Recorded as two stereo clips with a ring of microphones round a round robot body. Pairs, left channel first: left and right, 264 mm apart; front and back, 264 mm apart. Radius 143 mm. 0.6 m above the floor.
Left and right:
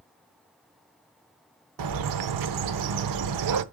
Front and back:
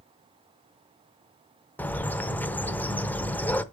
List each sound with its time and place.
1.8 s a bird: 85° right, 0.7 m